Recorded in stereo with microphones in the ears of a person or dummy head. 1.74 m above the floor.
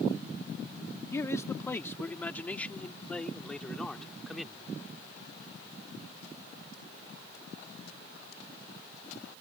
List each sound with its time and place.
1.1 s a man speaking: 15° left (ahead or behind); by 4.7 s centre (ahead or behind)